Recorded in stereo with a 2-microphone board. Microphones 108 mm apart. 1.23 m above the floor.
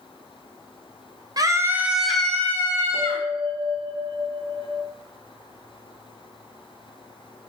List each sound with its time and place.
1.4 s a scream: 35° right (ahead or behind), 0.6 m; by 3.2 s 30° left (ahead or behind), 1.1 m
2.9 s a bell: 30° left (ahead or behind), 2.5 m